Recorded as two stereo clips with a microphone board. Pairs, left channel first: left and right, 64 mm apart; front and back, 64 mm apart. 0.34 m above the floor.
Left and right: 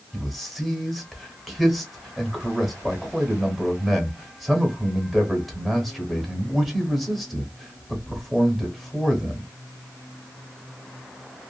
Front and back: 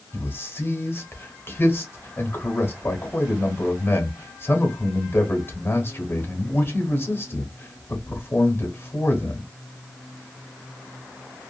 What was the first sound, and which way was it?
A man speaking, straight ahead.